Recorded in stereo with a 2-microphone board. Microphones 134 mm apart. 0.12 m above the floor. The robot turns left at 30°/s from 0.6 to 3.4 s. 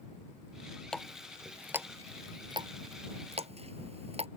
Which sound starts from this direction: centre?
A running tap, at 0.9 s.